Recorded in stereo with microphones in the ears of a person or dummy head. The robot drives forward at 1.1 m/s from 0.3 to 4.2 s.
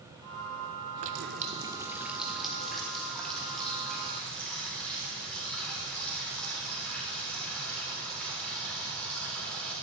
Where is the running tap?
35° right (ahead or behind), 0.5 m; by 9.7 s 5° right (ahead or behind), 3.5 m.